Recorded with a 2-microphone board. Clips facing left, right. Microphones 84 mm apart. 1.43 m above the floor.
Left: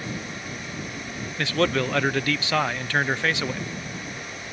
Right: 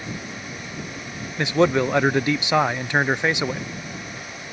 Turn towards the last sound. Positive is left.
turn(degrees=-20)  # may be behind; listen again after turning